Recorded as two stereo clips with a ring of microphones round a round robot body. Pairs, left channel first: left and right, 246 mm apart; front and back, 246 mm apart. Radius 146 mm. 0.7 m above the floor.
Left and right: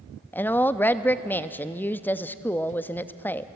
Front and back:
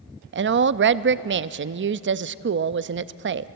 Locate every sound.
0.3 s a woman speaking: 170° left, 0.6 m